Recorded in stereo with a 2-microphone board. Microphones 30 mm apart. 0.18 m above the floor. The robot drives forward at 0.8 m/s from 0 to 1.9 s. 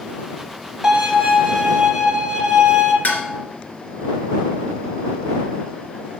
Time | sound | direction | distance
0.8 | a violin | 15° right (ahead or behind) | 1.9 m
3.0 | dishes clattering | 65° left (ahead or behind) | 1.9 m